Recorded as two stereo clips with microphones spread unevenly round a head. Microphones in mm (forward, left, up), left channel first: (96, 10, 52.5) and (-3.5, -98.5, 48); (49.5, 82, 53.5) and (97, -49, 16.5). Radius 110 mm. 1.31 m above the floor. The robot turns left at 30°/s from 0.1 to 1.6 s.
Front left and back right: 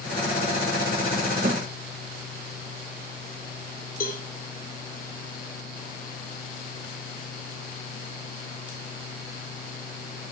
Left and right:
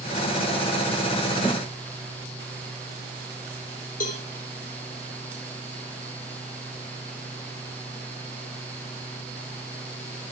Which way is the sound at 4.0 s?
90° left.